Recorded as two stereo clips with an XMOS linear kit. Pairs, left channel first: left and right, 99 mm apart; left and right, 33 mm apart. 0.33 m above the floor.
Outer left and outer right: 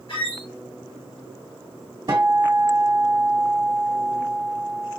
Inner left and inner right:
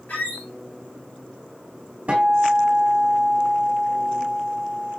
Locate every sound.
0.1 s a squeak: 60° left (ahead or behind), 2 m
2.1 s a guitar: 40° right (ahead or behind), 1.8 m